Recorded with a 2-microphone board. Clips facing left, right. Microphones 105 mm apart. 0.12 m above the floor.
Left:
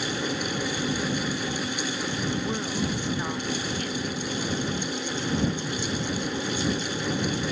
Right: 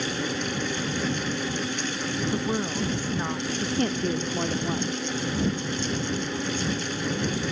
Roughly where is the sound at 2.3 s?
Centre.